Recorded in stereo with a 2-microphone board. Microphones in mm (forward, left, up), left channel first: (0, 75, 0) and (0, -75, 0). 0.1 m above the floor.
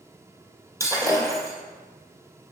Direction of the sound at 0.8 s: 20° right (ahead or behind).